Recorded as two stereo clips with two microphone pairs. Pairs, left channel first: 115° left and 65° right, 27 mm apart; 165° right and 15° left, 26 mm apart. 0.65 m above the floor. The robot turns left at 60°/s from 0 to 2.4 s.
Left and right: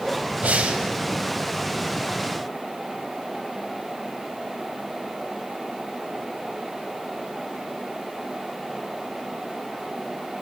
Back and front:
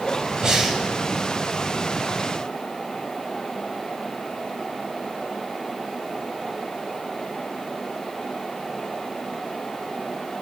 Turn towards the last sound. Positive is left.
turn(degrees=-165)